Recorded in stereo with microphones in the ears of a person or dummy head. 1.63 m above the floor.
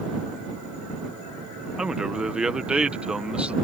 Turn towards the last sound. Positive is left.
turn(degrees=0)  # may be behind; listen again after turning